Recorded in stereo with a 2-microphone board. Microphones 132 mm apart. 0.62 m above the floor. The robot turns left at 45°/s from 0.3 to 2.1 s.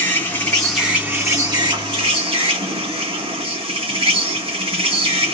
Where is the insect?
20° left, 1.4 m; by 5.3 s 65° right, 1.4 m.